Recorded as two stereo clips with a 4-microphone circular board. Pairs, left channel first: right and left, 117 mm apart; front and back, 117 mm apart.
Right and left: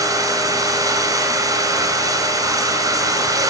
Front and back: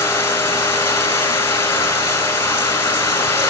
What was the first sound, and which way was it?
Running water, 55° left.